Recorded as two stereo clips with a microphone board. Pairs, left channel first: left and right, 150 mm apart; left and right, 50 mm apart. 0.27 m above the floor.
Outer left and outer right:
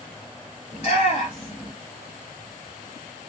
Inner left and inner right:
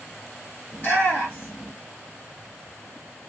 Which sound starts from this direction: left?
A shout, at 0.7 s.